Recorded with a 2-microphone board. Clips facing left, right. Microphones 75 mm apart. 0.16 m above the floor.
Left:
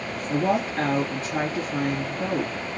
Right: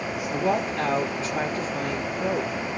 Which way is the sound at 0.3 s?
45° left (ahead or behind).